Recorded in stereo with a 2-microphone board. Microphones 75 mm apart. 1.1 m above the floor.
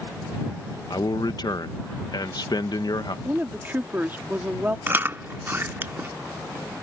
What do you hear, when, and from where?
0.9 s a man speaking: 65° left (ahead or behind)
3.2 s a woman speaking: 25° right (ahead or behind)
4.9 s chewing: 30° right (ahead or behind)